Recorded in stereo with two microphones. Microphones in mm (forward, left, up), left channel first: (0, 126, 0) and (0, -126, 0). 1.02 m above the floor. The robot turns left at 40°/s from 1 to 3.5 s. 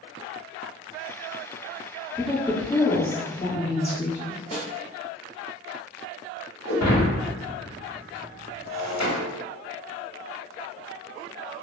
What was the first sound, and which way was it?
A woman speaking, straight behind.